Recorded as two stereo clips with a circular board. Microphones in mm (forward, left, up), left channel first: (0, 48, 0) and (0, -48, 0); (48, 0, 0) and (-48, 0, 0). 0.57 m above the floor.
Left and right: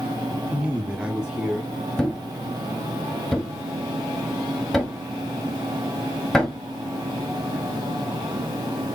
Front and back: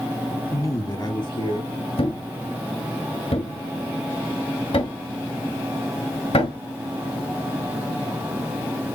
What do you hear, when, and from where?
0.5 s a man speaking: 25° right, 1.2 m; by 1.7 s 5° right, 2 m
2.0 s a thud: 5° left, 1.6 m